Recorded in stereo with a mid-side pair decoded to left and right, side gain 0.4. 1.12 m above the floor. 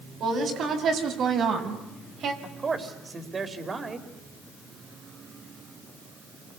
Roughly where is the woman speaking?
Ahead right.